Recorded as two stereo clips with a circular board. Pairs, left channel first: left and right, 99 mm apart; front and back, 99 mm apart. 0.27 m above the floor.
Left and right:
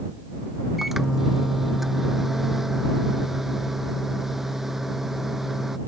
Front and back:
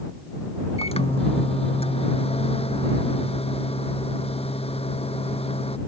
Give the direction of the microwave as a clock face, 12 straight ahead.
12 o'clock.